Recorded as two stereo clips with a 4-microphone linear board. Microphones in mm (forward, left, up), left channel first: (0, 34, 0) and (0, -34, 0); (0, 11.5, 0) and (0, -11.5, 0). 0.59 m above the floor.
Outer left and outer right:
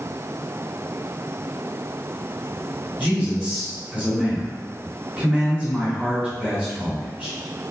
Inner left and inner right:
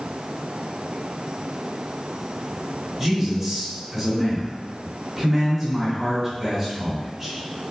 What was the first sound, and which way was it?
A man speaking, 20° right (ahead or behind).